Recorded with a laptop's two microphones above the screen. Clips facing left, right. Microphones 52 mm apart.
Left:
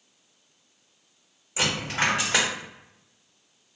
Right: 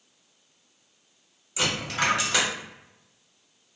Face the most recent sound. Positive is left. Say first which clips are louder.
# left 1 dB
turn(degrees=30)  # may be behind; listen again after turning